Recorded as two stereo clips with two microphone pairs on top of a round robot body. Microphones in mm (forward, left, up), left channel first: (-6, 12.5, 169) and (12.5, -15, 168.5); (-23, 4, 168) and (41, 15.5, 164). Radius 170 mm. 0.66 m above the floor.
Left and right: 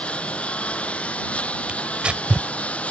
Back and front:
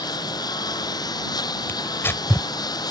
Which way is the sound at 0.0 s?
Straight behind.